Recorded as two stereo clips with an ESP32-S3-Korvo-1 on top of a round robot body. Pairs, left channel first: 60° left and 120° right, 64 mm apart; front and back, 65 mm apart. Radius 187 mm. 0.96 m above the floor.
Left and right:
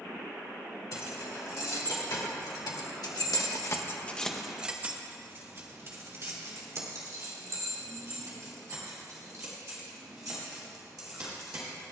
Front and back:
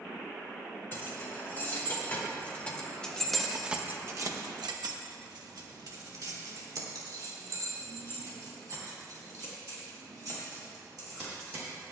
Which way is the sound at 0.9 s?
55° left.